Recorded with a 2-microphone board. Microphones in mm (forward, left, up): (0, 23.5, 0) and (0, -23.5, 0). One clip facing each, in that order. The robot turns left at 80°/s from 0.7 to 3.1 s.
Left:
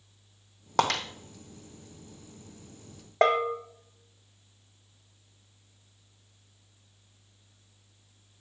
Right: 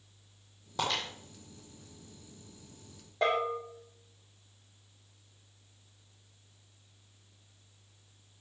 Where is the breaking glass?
80° left, 1.2 m.